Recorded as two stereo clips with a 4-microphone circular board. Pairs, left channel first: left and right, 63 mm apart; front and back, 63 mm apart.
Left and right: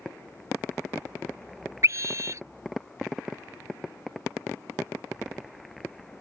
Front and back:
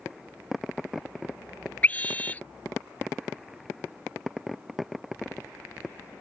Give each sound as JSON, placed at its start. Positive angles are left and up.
{"t": 1.8, "sound": "a scream", "azimuth_deg": -65}